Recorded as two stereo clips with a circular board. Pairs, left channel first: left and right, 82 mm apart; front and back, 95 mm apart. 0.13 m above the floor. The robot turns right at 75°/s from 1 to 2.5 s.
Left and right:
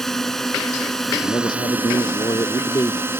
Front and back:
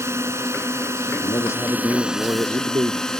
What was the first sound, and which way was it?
A drone, 170° left.